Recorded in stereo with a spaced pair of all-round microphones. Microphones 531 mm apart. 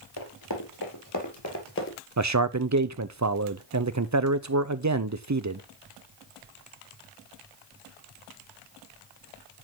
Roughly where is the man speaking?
Right.